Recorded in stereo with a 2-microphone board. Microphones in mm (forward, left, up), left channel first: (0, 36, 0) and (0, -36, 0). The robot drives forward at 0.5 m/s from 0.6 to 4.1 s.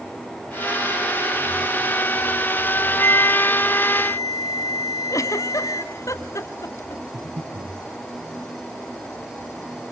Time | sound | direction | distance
3.0 | a flute | 40° left (ahead or behind) | 2.0 m
5.1 | a giggle | 45° left (ahead or behind) | 1.2 m
7.1 | breathing | 75° right (ahead or behind) | 8.5 m